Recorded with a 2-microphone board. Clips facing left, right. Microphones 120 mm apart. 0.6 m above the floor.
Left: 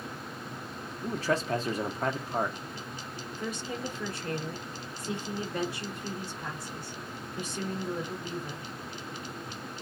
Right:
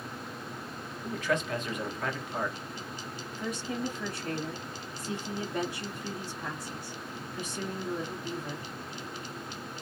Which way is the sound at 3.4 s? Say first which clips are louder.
Right 2 dB; centre (ahead or behind).